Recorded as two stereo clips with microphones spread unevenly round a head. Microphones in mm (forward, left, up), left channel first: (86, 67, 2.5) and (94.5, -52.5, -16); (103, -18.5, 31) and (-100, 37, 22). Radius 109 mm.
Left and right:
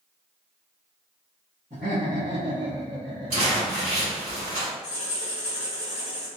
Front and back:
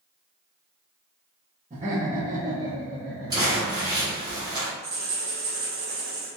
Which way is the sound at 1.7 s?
135° right.